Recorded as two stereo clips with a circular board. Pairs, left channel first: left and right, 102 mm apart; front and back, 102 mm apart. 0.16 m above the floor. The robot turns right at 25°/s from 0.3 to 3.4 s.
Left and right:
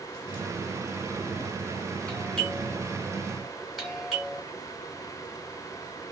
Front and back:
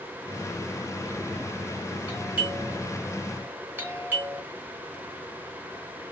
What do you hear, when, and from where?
2.1 s a doorbell: 145° left, 2 m; by 4.4 s straight behind, 2 m